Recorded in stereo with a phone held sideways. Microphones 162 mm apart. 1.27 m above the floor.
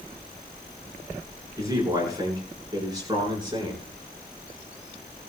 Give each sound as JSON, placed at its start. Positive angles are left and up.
{"t": 1.6, "sound": "a man speaking", "side_deg": -20, "distance_m": 10.0}